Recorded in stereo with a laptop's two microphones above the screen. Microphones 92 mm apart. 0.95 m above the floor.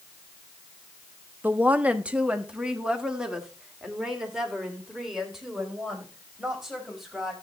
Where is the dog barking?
I don't hear a dog barking.